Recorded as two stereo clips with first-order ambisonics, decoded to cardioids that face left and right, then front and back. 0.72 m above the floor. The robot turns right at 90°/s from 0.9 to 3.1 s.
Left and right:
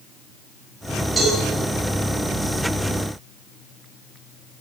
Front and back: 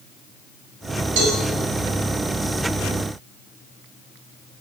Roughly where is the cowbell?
Behind.